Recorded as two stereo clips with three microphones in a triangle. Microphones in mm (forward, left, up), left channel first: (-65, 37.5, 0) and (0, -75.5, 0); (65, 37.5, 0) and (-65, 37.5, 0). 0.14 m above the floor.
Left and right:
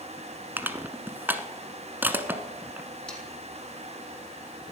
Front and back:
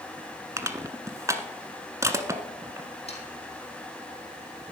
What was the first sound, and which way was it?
Crushing, 125° right.